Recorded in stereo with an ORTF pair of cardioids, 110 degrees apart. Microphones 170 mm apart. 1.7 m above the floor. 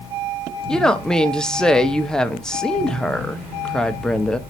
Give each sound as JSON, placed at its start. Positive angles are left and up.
{"t": 0.7, "sound": "a woman speaking", "azimuth_deg": 5, "distance_m": 1.0}